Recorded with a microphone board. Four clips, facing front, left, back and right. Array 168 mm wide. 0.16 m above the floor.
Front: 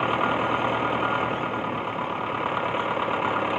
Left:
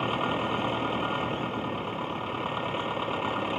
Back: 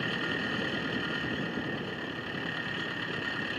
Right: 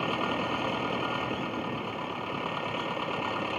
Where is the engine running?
5° left.